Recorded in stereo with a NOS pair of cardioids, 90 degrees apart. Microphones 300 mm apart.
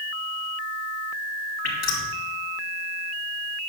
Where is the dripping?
55° left, 3.5 m.